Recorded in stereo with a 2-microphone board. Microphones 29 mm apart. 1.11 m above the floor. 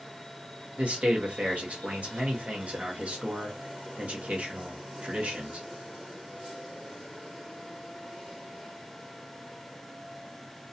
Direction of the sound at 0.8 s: 50° right (ahead or behind).